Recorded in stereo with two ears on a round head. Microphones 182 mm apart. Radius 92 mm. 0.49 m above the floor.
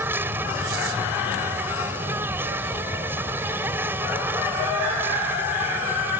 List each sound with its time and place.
0.0 s an insect: 10° right (ahead or behind)